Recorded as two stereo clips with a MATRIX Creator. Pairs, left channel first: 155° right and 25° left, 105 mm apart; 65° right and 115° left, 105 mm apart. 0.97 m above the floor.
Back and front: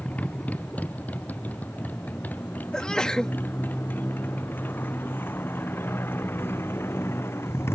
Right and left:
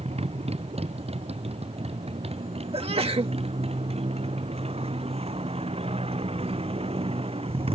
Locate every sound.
0.0 s a motorcycle: 125° left; by 7.8 s 135° left
2.7 s a sneeze: 120° left